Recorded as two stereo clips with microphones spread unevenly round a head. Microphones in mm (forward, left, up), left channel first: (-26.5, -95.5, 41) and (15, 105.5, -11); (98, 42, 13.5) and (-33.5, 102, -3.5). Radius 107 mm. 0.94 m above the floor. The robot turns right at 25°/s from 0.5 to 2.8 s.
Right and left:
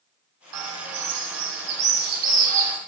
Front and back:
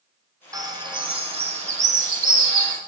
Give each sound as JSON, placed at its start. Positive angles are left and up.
{"t": 0.5, "sound": "a bird", "azimuth_deg": 90, "distance_m": 1.6}